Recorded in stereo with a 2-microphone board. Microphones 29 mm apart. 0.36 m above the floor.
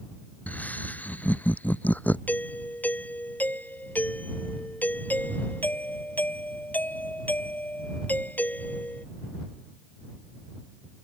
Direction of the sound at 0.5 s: 60° left (ahead or behind).